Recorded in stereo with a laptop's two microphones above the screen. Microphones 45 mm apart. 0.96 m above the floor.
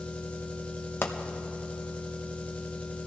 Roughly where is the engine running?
Left.